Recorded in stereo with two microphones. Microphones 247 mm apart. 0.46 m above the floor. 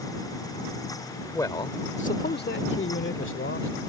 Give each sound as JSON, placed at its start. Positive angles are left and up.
{"t": 1.3, "sound": "a man speaking", "side_deg": 10}